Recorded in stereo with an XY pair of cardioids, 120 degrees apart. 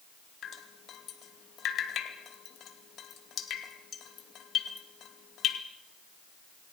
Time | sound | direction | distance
0.4 | dripping | 55° left | 2.5 m